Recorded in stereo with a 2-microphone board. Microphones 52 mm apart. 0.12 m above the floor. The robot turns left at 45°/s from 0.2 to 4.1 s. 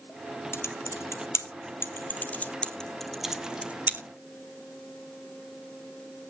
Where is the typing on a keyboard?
55° left (ahead or behind), 1.5 m; by 4.0 s 40° right (ahead or behind), 1.5 m.